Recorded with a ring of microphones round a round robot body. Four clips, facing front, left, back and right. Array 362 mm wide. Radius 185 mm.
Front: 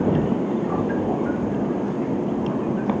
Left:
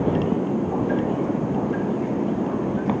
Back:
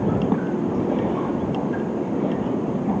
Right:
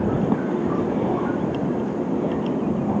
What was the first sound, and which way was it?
Only background noise.